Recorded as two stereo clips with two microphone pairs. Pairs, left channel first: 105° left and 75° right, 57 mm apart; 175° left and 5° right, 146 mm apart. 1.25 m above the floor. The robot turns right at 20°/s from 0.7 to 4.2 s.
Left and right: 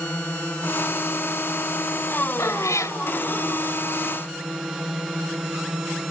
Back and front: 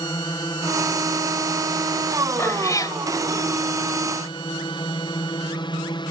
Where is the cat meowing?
100° left; by 3.0 s 110° left.